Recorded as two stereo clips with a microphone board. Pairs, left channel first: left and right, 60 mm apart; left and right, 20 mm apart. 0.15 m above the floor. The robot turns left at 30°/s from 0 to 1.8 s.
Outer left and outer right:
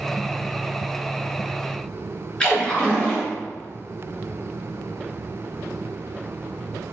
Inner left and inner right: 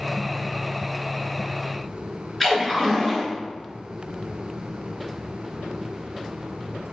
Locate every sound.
2.4 s a splash: 20° left (ahead or behind), 1.9 m